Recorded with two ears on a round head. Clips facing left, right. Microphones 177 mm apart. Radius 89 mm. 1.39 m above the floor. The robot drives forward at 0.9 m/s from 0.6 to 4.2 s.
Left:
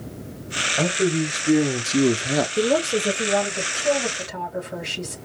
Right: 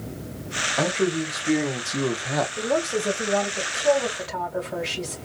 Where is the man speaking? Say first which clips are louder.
Left 2 dB; 10° left (ahead or behind), 1.4 m; by 2.5 s 30° left (ahead or behind), 0.5 m.